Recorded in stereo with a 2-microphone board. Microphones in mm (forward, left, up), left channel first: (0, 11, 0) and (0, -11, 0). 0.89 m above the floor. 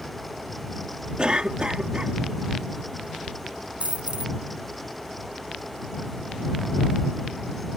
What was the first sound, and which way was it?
A cough, 45° right (ahead or behind).